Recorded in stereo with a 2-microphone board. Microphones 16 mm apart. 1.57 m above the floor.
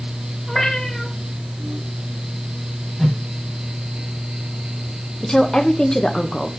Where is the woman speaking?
40° left (ahead or behind), 0.7 m.